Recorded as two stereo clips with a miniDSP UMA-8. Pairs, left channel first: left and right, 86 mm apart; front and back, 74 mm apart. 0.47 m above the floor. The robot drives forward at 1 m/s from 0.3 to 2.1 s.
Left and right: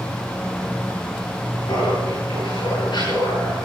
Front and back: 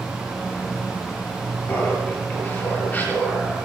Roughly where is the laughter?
Ahead left.